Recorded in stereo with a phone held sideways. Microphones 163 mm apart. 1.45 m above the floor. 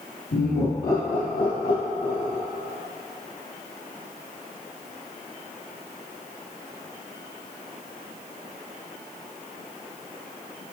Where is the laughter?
85° left, 1.0 m; by 2.4 s 65° left (ahead or behind), 3 m.